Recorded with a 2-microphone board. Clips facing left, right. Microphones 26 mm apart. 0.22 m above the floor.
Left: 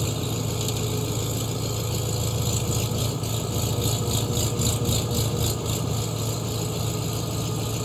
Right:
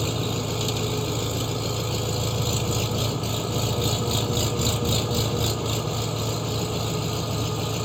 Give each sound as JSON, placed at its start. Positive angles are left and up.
{"t": 0.0, "sound": "an engine running", "side_deg": -10}